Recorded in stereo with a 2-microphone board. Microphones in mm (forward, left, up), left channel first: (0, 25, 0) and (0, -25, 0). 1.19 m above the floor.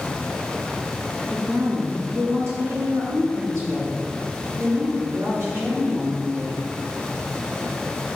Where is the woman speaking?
45° right (ahead or behind), 1.9 m; by 6.6 s 65° right (ahead or behind), 4 m.